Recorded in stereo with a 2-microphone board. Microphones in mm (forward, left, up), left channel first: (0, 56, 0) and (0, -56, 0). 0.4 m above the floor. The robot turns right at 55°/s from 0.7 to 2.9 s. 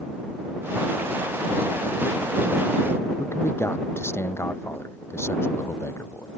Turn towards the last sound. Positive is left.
turn(degrees=20)  # may be behind; listen again after turning